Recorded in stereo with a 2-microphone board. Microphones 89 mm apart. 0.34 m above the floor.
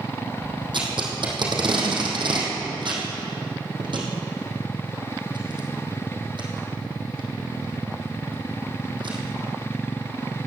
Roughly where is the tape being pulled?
Right.